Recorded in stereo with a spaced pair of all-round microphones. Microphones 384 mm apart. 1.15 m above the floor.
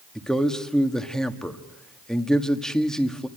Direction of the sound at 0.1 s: Centre (ahead or behind).